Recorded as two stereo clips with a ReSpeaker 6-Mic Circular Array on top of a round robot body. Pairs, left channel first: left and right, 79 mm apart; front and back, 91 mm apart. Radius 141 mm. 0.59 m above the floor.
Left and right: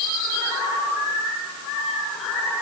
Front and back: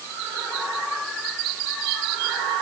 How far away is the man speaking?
No man speaking in this recording.